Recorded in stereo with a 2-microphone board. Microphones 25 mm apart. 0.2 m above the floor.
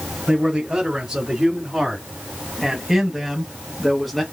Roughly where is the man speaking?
Right.